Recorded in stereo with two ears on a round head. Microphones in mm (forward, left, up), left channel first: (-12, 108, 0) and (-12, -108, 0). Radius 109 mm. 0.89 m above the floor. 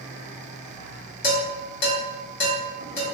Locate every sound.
1.2 s dishes clattering: 35° left (ahead or behind), 1.0 m